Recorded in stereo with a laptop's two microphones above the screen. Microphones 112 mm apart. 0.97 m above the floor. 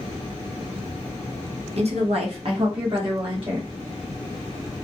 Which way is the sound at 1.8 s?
60° right (ahead or behind).